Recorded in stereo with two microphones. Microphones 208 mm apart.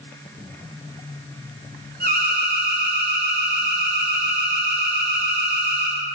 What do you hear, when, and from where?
2.0 s an alarm: 45° right (ahead or behind), 2.5 m